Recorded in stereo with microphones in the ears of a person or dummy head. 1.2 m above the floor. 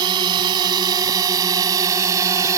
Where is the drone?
25° right (ahead or behind); by 2.6 s 20° right (ahead or behind).